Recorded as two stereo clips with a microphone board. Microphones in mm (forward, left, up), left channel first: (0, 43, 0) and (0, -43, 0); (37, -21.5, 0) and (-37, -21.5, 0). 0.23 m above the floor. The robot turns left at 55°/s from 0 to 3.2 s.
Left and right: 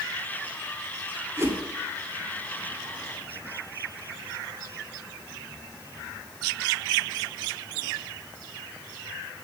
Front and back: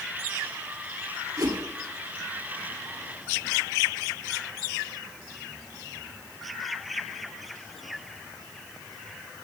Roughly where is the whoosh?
Behind right.